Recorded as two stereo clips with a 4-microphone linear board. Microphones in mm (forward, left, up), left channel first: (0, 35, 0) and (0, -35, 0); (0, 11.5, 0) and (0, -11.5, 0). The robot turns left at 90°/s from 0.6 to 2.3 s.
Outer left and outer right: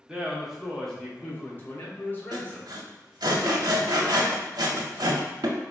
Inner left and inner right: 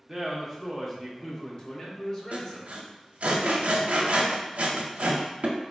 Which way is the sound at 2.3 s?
85° right.